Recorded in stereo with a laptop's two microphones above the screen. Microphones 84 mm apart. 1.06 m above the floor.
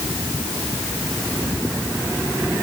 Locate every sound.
Only background noise.